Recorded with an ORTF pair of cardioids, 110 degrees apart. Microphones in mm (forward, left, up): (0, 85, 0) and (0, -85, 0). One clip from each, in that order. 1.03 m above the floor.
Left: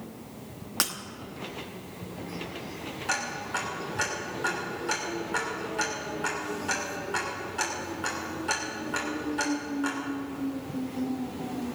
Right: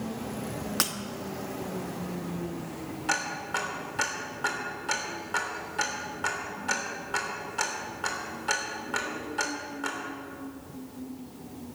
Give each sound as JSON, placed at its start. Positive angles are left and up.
{"t": 0.8, "sound": "breaking glass", "azimuth_deg": 0, "distance_m": 1.1}
{"t": 3.1, "sound": "ticking", "azimuth_deg": -10, "distance_m": 3.0}